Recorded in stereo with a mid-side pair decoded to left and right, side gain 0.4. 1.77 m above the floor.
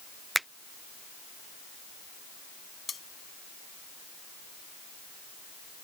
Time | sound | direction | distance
0.3 | a finger snap | 5° right | ?
2.9 | cutlery clinking | 40° left | ?